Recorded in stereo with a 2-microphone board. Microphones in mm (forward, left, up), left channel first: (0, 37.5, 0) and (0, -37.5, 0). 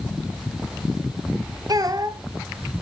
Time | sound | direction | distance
1.7 | a child speaking | 55° right (ahead or behind) | 1.2 m